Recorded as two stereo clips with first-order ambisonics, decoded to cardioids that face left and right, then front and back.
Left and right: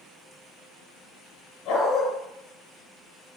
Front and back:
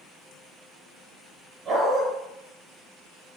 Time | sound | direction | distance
1.6 | a dog barking | 120° left | 2 m